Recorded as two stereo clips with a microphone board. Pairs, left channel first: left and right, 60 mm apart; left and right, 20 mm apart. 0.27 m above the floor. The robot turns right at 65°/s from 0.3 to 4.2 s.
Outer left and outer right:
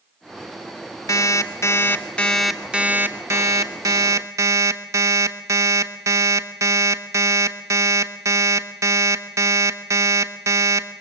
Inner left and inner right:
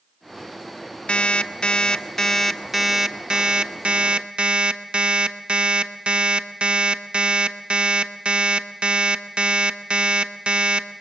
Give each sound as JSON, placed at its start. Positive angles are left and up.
{"t": 1.1, "sound": "an alarm clock", "azimuth_deg": 90, "distance_m": 1.1}